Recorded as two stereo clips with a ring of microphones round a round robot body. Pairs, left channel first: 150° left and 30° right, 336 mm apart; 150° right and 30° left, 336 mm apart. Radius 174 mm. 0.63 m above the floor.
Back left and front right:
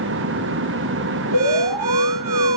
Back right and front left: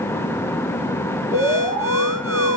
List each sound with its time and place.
1.3 s an alarm: 55° right, 3.5 m